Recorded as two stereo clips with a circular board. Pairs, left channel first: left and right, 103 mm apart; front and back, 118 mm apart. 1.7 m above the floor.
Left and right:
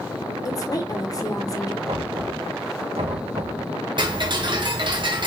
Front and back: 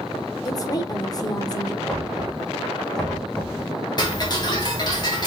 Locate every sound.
0.5 s a woman speaking: 50° left, 0.9 m
1.9 s knocking: 85° right, 1.5 m
4.0 s ticking: 50° right, 1.1 m